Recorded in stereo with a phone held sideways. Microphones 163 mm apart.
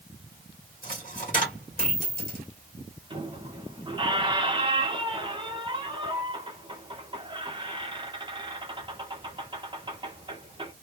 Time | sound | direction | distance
0.8 | a dropped coin | 55° left (ahead or behind) | 1.4 m
3.1 | a squeak | 30° right (ahead or behind) | 1.4 m